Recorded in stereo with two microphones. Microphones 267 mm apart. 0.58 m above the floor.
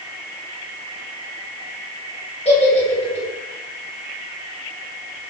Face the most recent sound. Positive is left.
turn(degrees=25)  # may be behind; listen again after turning